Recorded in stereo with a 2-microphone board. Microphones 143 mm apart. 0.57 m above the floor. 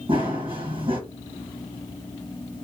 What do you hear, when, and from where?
0.1 s running footsteps: 35° right (ahead or behind), 1.3 m